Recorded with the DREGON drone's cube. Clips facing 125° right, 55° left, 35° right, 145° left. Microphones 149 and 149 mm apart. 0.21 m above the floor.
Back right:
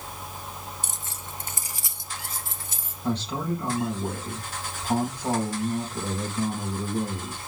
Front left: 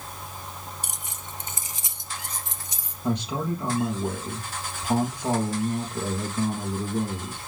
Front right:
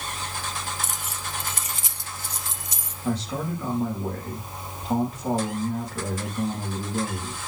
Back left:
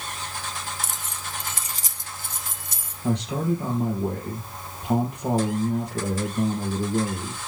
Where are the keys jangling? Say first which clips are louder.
Even, front right 1 dB; 5° right, 0.7 m; by 2.9 s 130° left, 1.9 m.